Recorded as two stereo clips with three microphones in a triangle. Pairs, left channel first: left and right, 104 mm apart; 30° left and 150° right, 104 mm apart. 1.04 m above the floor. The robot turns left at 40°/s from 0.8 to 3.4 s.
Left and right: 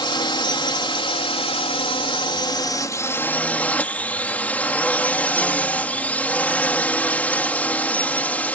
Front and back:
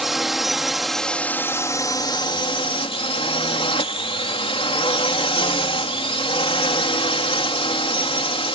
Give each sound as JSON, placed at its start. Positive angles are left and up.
{"t": 0.0, "sound": "a drone", "azimuth_deg": 120}